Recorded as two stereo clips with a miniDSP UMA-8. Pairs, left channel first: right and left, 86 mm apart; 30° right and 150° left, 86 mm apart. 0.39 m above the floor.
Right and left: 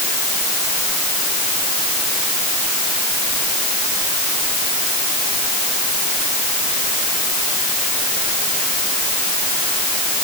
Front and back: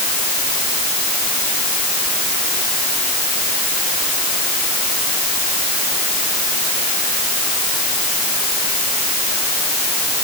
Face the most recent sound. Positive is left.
No sound to turn to.